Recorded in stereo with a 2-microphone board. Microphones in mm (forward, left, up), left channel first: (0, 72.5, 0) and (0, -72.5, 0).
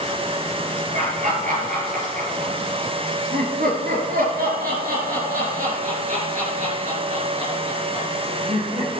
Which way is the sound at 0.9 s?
60° right (ahead or behind).